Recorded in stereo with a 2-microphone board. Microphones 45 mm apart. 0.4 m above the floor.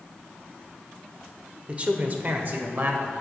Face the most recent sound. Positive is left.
turn(degrees=-55)  # may be behind; listen again after turning